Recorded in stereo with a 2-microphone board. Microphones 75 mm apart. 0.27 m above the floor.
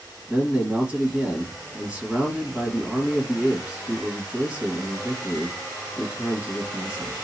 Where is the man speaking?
15° right (ahead or behind), 1.6 m.